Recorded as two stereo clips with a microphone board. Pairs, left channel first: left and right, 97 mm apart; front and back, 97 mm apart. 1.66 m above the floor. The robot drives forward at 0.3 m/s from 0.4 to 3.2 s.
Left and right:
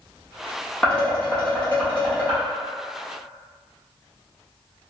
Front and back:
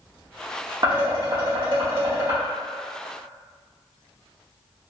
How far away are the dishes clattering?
About 1.3 m.